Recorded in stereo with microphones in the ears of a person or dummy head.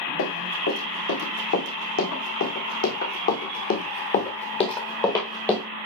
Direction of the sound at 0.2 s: 65° left (ahead or behind).